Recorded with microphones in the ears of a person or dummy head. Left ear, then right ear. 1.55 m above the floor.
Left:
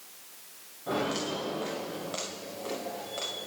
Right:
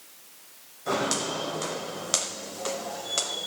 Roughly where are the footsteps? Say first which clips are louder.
Right 4 dB; right.